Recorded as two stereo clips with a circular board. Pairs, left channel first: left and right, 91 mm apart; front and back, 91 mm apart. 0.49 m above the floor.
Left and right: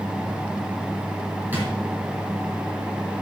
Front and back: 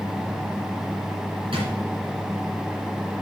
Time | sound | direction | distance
1.5 | a drawer | 160° right | 4.5 m